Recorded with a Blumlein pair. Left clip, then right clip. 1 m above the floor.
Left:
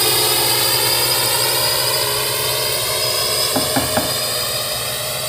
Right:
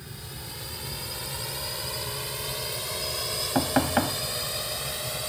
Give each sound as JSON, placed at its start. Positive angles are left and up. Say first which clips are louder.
{"t": 0.0, "sound": "a drone", "louder": "left 26 dB", "azimuth_deg": 45}
{"t": 3.5, "sound": "knocking", "louder": "left 6 dB", "azimuth_deg": 10}